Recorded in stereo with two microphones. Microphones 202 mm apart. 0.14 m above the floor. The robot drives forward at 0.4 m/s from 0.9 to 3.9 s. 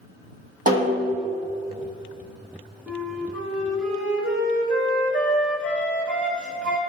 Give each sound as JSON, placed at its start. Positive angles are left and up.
{"t": 0.7, "sound": "a snare drum", "side_deg": -45, "distance_m": 1.7}
{"t": 2.9, "sound": "a flute", "side_deg": 5, "distance_m": 1.2}